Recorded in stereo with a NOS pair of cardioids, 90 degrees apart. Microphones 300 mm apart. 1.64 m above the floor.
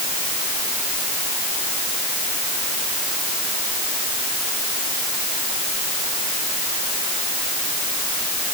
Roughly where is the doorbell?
No doorbell in this recording.